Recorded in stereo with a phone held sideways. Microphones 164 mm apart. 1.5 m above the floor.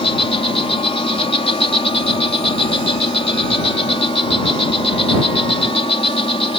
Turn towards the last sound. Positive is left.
turn(degrees=35)  # may be behind; listen again after turning